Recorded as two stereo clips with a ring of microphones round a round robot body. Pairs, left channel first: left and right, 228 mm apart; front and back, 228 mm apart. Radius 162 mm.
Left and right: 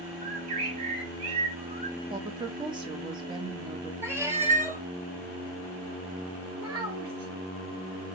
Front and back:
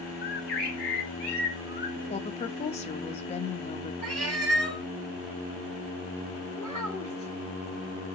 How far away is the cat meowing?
About 1.2 m.